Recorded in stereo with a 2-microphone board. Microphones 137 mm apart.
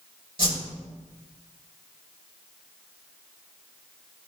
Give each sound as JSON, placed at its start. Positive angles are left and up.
{"t": 0.4, "sound": "a whoosh", "side_deg": -40, "distance_m": 2.5}